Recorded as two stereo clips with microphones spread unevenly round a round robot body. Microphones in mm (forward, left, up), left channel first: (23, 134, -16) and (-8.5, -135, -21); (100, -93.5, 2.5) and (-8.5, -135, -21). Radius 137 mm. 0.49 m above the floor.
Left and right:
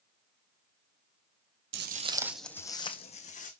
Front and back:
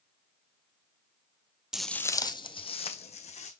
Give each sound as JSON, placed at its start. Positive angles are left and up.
{"t": 1.7, "sound": "footsteps", "azimuth_deg": -65, "distance_m": 0.6}